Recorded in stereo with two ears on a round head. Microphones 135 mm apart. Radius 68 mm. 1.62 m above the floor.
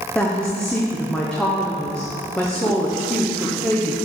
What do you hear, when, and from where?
0.1 s a woman speaking: 5° left (ahead or behind), 0.8 m